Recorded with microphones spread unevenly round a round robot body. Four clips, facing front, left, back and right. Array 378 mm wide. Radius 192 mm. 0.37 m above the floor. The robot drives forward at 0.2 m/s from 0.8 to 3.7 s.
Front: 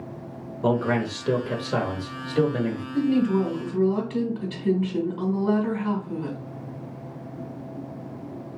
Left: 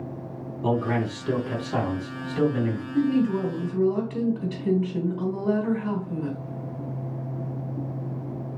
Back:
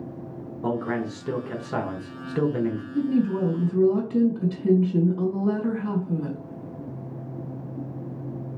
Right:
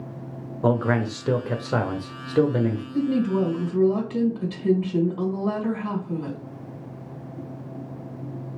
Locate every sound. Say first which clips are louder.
0.6 s a man speaking: right 3 dB, front 4 dB; 65° right, 1.0 m; by 2.8 s 105° right, 0.9 m
2.9 s a woman speaking: left 1 dB, front 2 dB; 130° right, 2.0 m